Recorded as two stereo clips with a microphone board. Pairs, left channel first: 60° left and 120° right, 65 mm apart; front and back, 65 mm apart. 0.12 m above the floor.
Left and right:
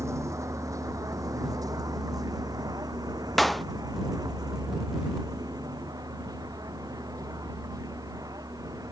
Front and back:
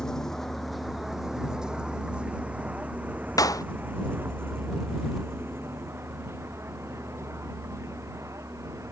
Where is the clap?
30° right.